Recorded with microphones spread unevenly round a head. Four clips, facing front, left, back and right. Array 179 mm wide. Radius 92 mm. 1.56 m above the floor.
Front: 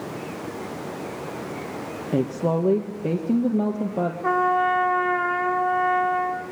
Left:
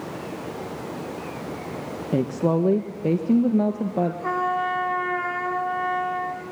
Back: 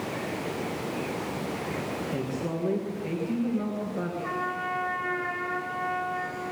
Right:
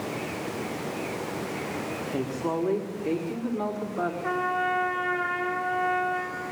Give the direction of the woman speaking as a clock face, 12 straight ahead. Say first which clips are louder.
Left 8 dB, front 13 dB; 10 o'clock.